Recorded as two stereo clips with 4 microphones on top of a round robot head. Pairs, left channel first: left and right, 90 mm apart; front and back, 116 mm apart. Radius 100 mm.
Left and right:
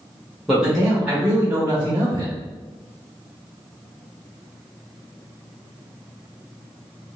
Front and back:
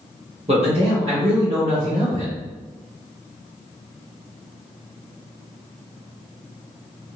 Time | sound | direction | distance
0.5 | a man speaking | straight behind | 1.3 m